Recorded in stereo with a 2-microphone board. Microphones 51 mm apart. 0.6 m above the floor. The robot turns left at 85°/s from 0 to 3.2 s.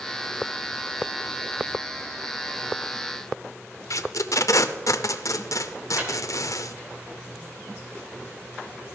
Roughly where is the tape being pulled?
Left.